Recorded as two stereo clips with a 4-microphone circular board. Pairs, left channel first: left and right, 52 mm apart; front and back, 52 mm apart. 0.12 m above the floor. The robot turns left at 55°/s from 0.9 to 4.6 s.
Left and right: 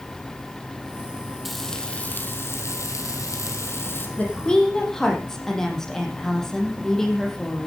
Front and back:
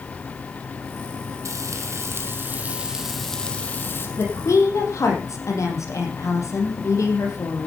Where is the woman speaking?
35° left, 4 m; by 7.7 s 10° left, 4 m.